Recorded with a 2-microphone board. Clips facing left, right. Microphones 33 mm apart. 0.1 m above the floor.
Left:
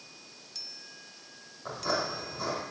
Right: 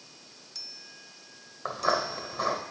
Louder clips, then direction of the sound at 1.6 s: Right 4 dB; 55° right (ahead or behind).